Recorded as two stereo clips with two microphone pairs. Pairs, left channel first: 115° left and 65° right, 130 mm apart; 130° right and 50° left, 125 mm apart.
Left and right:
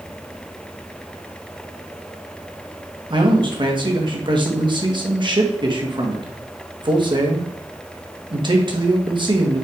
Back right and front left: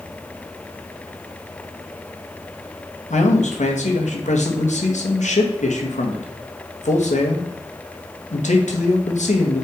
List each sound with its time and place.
3.1 s a man speaking: 115° right, 1.8 m